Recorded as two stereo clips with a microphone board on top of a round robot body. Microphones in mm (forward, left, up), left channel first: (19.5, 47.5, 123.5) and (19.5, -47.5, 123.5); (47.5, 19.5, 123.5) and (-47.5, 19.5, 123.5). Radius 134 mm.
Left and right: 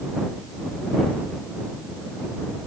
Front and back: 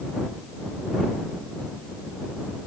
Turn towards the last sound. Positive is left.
No sound to turn to.